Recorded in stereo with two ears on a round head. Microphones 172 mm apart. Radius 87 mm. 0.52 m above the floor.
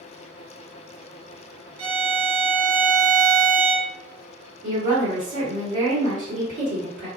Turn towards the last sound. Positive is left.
turn(degrees=-40)  # may be behind; listen again after turning